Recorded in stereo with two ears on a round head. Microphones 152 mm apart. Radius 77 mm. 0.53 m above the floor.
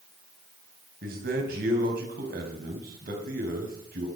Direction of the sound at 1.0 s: 55° right (ahead or behind).